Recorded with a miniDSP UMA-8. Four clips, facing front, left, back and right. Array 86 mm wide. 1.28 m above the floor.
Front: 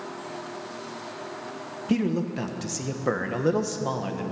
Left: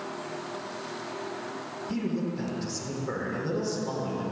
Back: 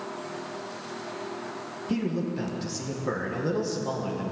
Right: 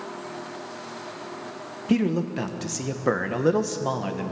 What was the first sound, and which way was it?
A man speaking, 65° right.